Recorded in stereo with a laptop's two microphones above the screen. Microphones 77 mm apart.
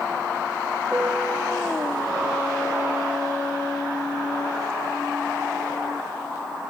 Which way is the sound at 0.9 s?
25° right (ahead or behind).